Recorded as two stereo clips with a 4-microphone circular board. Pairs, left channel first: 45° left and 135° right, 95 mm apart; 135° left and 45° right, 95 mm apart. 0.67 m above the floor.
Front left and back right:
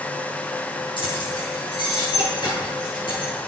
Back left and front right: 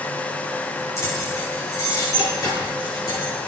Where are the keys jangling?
75° left, 9.5 m; by 3.3 s 85° left, 11.5 m.